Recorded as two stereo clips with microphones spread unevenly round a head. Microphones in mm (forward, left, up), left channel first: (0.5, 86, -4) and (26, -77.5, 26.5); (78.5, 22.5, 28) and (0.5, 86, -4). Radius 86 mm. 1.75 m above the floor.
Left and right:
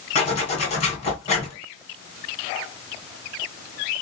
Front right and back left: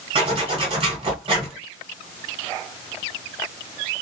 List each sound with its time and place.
0.1 s a zipper: 135° left, 1.8 m